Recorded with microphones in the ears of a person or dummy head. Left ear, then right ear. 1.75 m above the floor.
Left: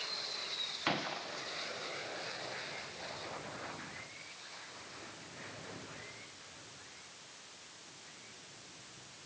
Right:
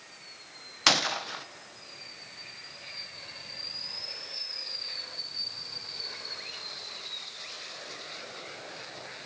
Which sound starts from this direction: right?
A gunshot, at 0.9 s.